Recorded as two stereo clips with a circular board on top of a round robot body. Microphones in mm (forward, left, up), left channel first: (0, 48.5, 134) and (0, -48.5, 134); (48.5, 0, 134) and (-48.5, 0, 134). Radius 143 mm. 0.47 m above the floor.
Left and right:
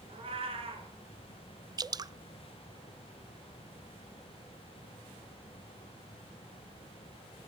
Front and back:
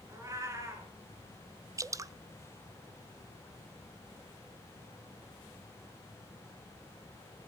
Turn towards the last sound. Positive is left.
turn(degrees=-130)